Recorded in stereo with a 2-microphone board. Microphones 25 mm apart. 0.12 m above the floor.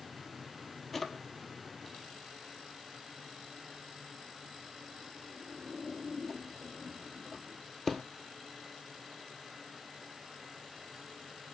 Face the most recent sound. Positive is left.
turn(degrees=5)  # may be behind; listen again after turning